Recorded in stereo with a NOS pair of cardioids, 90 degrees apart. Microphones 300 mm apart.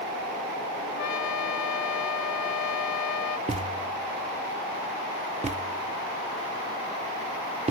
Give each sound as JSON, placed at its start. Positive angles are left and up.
{"t": 1.0, "sound": "a trumpet", "azimuth_deg": 65}
{"t": 3.5, "sound": "a thud", "azimuth_deg": -25}